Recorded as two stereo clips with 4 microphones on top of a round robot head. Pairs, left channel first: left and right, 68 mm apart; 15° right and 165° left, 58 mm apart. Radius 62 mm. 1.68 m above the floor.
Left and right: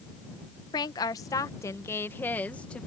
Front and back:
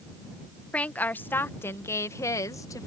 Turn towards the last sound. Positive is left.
turn(degrees=10)